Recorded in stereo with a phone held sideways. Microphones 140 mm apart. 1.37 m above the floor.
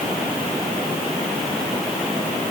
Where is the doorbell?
I don't hear a doorbell.